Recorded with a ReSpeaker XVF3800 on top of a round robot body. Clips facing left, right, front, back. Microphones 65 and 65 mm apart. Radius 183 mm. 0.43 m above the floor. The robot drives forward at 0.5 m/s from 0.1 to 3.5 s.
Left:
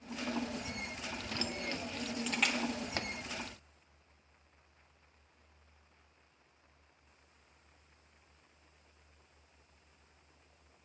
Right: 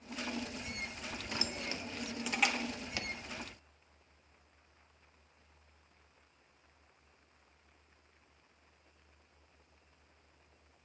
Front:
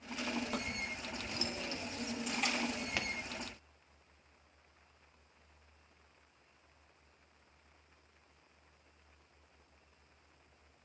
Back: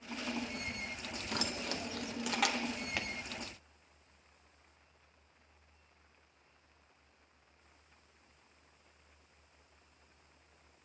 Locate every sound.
1.3 s keys jangling: 170° right, 0.7 m; by 2.6 s 175° right, 1.3 m
3.0 s a pop: 90° left, 1.2 m; by 3.1 s 95° left, 1.3 m